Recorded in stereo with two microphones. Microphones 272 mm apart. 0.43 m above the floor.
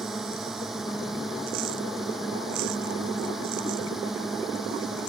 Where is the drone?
Centre (ahead or behind).